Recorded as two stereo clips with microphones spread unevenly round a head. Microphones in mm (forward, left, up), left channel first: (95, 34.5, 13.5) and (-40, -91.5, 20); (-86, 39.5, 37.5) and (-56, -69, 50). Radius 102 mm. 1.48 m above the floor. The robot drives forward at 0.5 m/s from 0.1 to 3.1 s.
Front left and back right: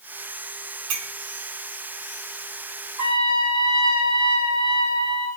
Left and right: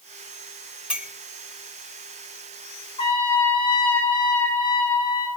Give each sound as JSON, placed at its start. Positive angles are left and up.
{"t": 0.9, "sound": "a clink", "azimuth_deg": -155, "distance_m": 4.0}
{"t": 3.0, "sound": "a trumpet", "azimuth_deg": 155, "distance_m": 9.5}